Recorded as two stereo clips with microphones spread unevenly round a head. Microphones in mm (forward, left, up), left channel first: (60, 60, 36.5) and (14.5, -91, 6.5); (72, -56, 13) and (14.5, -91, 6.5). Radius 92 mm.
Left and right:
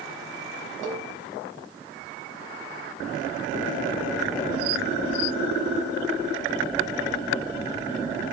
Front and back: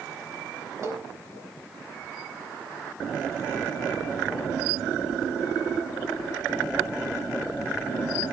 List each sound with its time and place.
0.8 s a cowbell: 110° right, 4 m